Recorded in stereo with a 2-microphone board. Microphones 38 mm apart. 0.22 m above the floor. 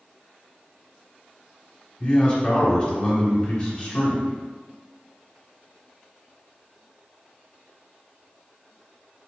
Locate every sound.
2.0 s a man speaking: 20° left (ahead or behind), 1.0 m